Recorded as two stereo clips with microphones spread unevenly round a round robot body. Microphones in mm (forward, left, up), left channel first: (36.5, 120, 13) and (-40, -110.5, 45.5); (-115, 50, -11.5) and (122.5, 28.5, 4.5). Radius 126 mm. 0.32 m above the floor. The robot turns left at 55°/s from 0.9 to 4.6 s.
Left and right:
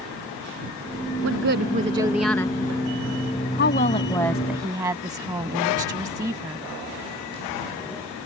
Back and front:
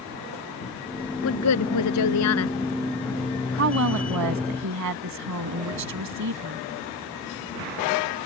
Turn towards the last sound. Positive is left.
turn(degrees=-30)